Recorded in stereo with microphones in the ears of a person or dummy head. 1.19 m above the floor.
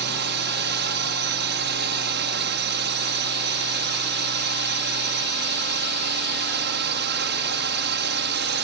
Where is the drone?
50° right (ahead or behind).